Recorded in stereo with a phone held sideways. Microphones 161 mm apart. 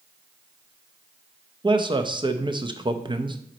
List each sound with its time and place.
1.6 s a man speaking: 30° right (ahead or behind), 0.6 m